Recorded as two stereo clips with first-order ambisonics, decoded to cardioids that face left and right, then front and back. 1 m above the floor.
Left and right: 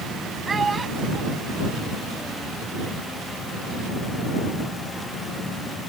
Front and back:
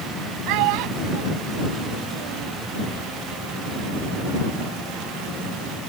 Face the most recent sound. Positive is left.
turn(degrees=170)